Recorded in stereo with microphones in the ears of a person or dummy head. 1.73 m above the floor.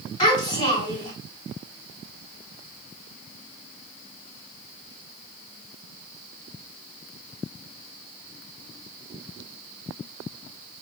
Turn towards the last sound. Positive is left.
turn(degrees=35)  # may be behind; listen again after turning